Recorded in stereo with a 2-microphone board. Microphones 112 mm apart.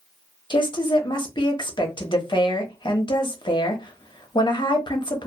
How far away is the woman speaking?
About 0.7 m.